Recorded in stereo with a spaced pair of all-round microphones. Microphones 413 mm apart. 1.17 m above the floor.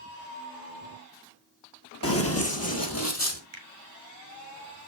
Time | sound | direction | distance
2.0 | running footsteps | 30° left (ahead or behind) | 1.4 m
3.5 | a finger snap | 85° right | 1.6 m